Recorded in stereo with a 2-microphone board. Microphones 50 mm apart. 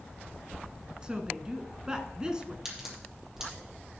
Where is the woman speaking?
20° right (ahead or behind), 1.2 m.